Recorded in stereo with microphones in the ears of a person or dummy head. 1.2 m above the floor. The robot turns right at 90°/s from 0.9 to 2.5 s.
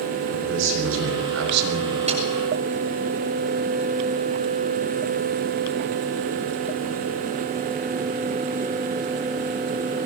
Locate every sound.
0.3 s a man speaking: 115° right, 5.5 m; by 2.0 s 20° right, 5.5 m
2.1 s a snare drum: 30° right (ahead or behind), 6 m; by 2.2 s 45° right (ahead or behind), 6 m